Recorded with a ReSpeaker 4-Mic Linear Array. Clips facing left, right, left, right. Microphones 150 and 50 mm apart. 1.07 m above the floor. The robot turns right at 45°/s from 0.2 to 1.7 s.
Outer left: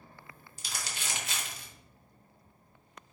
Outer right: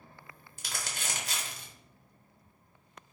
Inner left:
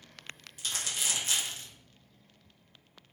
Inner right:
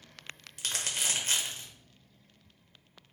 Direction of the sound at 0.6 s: 55° right (ahead or behind).